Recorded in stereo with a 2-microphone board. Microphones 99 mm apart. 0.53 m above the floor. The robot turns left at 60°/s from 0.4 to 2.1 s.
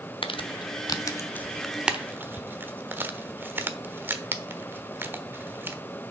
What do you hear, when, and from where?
0.2 s crumpling: 60° left (ahead or behind), 1.0 m; by 5.8 s 20° right (ahead or behind), 1.0 m